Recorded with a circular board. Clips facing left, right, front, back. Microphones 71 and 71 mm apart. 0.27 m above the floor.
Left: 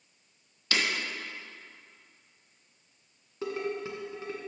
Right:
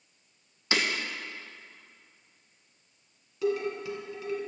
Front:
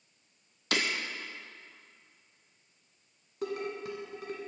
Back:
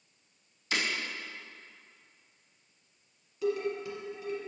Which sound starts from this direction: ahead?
Breaking glass, at 0.7 s.